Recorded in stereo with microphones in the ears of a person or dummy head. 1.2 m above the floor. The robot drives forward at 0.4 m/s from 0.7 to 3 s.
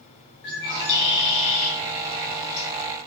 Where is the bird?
60° left (ahead or behind), 1.1 m; by 2.7 s 75° left (ahead or behind), 0.9 m.